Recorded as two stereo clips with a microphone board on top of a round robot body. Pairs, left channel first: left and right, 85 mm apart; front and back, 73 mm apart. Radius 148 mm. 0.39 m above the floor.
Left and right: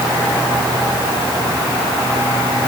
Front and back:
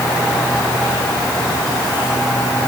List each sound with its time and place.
Only background noise.